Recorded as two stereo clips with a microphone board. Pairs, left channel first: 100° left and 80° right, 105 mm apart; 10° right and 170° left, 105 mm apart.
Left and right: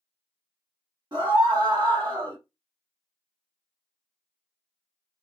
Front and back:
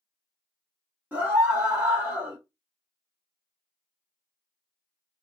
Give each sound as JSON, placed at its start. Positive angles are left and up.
{"t": 1.1, "sound": "a scream", "azimuth_deg": -120, "distance_m": 1.1}